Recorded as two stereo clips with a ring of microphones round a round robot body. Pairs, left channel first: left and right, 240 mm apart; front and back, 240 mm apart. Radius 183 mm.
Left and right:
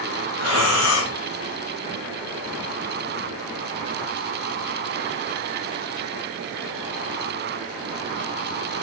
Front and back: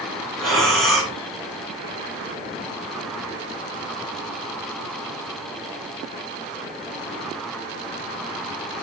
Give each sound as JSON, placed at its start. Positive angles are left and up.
{"t": 0.4, "sound": "breathing", "azimuth_deg": 90, "distance_m": 5.0}